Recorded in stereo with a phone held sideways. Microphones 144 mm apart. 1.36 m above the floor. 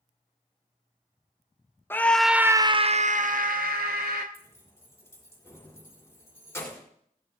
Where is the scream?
15° left (ahead or behind), 0.7 m; by 4.2 s 90° right, 1.1 m.